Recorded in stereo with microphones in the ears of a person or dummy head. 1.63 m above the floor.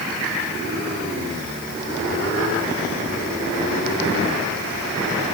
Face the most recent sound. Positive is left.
No sound to turn to.